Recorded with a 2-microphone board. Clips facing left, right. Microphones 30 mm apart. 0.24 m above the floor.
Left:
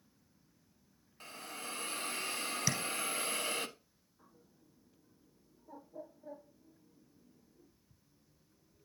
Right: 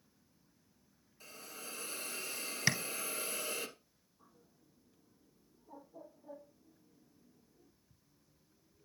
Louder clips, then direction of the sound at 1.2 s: Left 5 dB; 55° left (ahead or behind).